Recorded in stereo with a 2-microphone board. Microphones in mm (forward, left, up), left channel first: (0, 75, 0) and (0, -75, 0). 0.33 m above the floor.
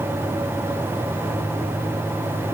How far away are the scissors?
No scissors in this recording.